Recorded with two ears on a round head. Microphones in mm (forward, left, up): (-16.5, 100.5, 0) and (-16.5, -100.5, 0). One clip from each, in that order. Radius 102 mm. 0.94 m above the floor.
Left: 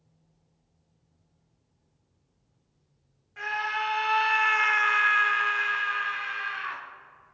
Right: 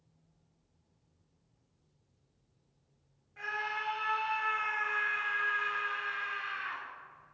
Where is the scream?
30° left (ahead or behind), 0.9 m; by 6.8 s 15° left (ahead or behind), 1.5 m.